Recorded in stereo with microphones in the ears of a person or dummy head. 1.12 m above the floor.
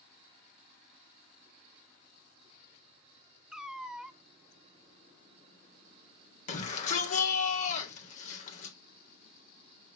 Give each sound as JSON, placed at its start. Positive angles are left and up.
{"t": 3.5, "sound": "a cat meowing", "side_deg": -5, "distance_m": 0.7}
{"t": 6.5, "sound": "a shout", "side_deg": 40, "distance_m": 4.0}